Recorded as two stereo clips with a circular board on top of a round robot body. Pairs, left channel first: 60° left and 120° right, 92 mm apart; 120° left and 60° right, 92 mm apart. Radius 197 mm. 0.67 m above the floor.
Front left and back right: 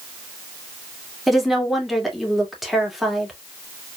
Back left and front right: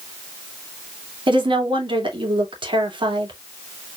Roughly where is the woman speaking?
Ahead right.